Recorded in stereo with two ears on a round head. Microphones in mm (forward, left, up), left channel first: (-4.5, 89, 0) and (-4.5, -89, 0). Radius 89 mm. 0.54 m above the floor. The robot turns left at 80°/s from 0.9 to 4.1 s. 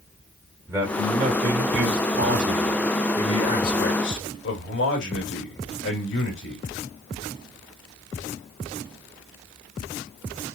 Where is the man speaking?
15° right, 1.4 m; by 6.6 s 90° left, 1.4 m.